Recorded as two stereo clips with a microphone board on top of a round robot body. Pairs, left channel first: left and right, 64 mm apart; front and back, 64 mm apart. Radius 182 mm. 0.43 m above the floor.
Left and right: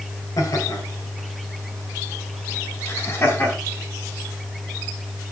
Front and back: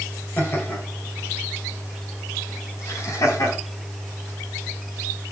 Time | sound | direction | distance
0.4 | laughter | 60° left | 3.5 m